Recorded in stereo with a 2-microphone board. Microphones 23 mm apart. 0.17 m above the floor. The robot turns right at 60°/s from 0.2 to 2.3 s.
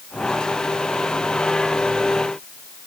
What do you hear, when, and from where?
Only background noise.